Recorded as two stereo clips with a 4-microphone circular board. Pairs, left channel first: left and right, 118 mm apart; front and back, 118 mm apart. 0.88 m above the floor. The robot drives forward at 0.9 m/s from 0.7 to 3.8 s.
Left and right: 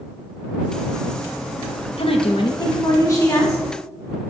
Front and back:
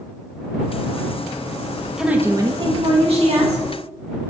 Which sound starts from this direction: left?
A woman speaking, at 2.0 s.